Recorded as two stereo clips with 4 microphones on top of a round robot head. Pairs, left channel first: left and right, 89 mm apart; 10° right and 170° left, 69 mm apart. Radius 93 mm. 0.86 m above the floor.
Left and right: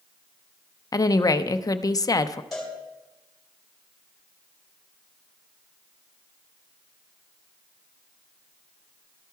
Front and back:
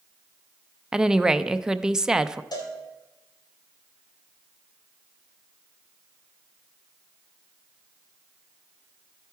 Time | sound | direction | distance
0.9 | a woman speaking | 95° left | 0.6 m
2.5 | a cowbell | 5° left | 2.5 m